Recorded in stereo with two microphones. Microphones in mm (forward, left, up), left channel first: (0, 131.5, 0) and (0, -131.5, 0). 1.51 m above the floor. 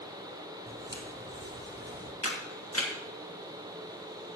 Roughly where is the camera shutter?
Left.